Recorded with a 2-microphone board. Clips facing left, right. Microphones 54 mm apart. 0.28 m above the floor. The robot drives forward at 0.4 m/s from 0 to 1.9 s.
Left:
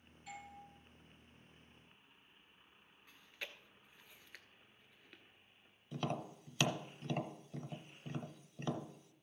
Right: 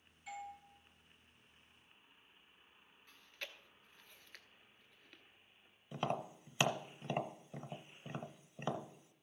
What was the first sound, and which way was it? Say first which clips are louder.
A doorbell: right 4 dB; 5° right (ahead or behind).